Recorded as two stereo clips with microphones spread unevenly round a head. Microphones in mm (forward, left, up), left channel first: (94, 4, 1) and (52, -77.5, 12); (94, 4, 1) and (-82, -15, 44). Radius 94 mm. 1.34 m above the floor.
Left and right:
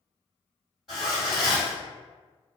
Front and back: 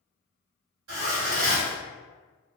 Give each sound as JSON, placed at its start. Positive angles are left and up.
{"t": 0.9, "sound": "a zipper", "azimuth_deg": 155, "distance_m": 1.6}